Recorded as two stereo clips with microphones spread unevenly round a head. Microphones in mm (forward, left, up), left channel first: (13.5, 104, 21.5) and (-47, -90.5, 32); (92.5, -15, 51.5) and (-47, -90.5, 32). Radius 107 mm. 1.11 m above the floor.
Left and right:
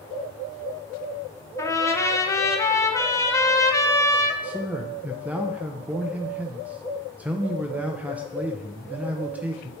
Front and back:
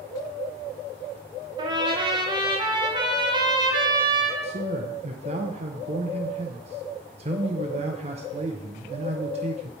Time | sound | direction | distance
1.6 | a trumpet | 145° left | 0.8 m
4.4 | a man speaking | 170° left | 0.5 m